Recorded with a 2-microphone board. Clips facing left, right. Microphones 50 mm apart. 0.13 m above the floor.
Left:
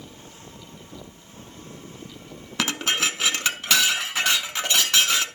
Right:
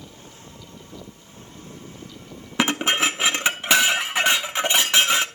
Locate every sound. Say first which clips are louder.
2.6 s dishes clattering: right 4 dB; 20° right (ahead or behind), 0.7 m